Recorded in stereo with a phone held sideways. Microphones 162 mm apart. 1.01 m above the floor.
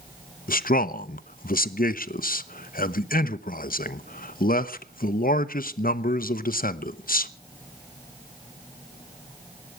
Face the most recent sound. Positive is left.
turn(degrees=60)  # may be behind; listen again after turning